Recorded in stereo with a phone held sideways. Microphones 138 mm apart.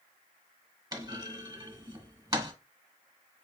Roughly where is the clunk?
Right.